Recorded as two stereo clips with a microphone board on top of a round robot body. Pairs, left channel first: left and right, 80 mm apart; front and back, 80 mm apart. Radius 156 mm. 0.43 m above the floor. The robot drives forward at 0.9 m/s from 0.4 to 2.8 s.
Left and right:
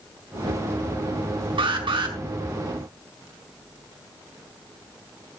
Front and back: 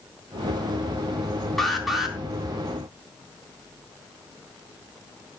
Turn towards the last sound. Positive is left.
turn(degrees=-105)